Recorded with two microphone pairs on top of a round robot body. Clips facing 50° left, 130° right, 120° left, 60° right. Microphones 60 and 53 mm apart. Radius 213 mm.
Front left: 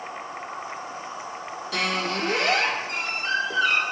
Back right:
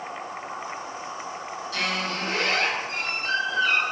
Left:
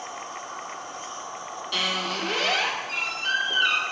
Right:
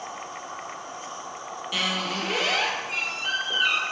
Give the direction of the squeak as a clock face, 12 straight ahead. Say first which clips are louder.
Front left 2 dB, even; 11 o'clock.